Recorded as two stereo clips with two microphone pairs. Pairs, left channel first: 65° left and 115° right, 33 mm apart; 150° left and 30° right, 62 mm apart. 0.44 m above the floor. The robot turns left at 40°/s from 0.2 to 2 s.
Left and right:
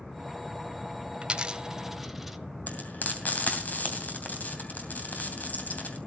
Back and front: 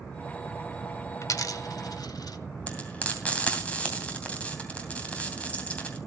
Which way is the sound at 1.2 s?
170° right.